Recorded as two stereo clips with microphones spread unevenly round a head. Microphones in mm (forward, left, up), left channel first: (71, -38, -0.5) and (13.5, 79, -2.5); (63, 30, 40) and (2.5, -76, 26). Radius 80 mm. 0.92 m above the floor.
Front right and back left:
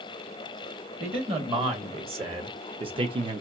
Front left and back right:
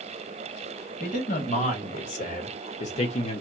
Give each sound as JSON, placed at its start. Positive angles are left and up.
{"t": 1.0, "sound": "a man speaking", "azimuth_deg": 70, "distance_m": 2.0}